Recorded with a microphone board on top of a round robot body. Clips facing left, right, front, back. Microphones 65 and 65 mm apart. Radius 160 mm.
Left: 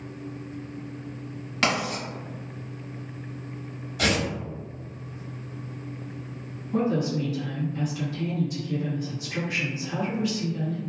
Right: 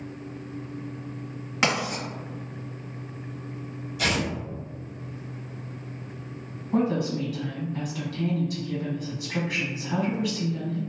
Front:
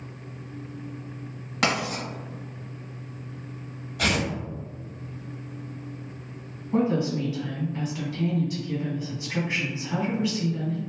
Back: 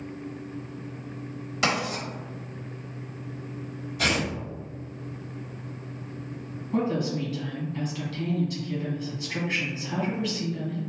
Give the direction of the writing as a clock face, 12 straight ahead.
1 o'clock.